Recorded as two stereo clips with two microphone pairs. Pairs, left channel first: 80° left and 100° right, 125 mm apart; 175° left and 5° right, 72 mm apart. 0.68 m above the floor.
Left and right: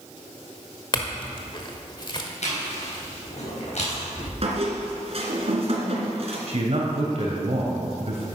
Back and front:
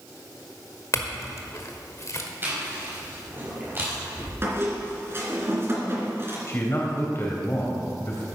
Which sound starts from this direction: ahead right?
A squeak, at 4.4 s.